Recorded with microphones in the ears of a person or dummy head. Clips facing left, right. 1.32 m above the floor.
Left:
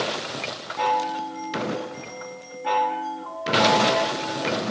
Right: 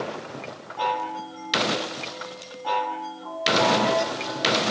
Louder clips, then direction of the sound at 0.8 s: Left 4 dB; 25° left (ahead or behind).